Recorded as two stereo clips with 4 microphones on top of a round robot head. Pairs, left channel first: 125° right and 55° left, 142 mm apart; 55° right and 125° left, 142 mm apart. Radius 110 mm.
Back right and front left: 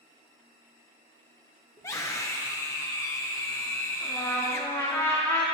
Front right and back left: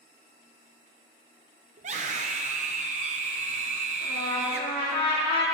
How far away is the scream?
About 0.7 m.